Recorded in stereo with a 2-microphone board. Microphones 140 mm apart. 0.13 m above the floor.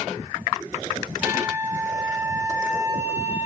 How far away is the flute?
About 1.2 m.